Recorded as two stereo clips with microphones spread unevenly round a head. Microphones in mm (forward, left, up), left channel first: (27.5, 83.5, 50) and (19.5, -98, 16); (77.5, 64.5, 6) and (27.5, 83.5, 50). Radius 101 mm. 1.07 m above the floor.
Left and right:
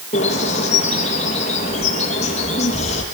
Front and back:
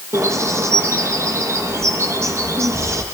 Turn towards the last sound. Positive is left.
turn(degrees=145)